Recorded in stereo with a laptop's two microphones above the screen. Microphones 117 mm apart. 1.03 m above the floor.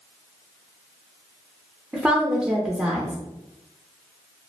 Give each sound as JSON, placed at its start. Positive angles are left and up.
{"t": 1.9, "sound": "a woman speaking", "side_deg": -15, "distance_m": 0.5}